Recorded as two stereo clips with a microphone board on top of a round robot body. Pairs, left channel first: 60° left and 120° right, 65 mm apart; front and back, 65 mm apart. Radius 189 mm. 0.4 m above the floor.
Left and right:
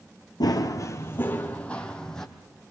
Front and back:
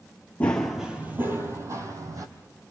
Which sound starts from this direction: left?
Running footsteps, at 0.4 s.